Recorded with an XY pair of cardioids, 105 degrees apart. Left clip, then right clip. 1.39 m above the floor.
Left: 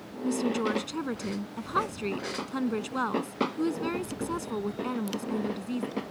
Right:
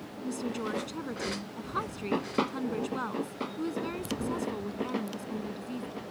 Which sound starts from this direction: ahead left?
A woman speaking, at 0.2 s.